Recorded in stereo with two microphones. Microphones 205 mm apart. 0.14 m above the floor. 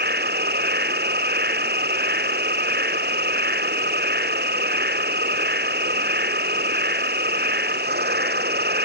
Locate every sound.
0.0 s an insect: 50° right (ahead or behind)